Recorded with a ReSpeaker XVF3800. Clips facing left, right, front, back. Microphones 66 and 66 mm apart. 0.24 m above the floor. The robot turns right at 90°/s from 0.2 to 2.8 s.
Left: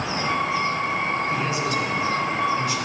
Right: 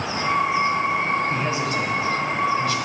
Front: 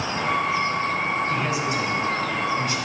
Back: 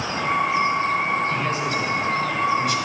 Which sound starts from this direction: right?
A man speaking, at 1.3 s.